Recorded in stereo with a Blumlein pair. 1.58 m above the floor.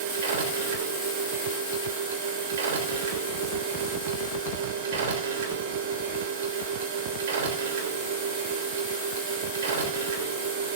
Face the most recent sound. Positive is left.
turn(degrees=-55)